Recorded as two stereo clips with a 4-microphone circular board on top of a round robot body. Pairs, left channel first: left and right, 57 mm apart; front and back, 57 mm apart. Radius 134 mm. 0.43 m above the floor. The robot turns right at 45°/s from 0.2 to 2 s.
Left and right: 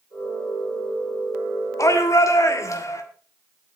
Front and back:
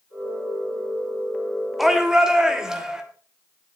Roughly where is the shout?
Left.